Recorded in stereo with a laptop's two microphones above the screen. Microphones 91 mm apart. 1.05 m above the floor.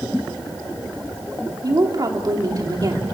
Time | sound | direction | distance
1.6 | a woman speaking | 45° right (ahead or behind) | 3 m